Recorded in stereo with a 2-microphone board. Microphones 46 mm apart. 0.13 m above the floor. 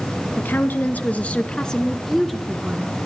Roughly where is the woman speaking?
Left.